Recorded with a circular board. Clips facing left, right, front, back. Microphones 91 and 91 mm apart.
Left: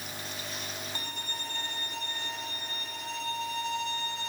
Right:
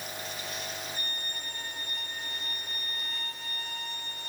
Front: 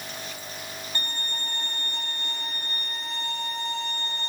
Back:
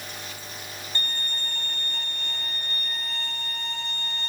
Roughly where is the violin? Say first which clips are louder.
Left 1 dB, back 2 dB; left.